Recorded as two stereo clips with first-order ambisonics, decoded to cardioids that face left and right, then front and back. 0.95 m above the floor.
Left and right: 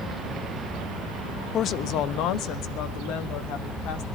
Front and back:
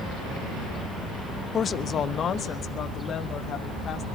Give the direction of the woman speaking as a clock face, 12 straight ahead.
10 o'clock.